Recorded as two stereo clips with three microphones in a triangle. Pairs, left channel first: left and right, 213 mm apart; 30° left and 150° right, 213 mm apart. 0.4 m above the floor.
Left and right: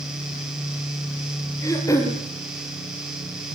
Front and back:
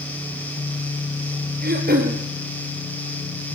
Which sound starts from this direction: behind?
Throat clearing, at 1.6 s.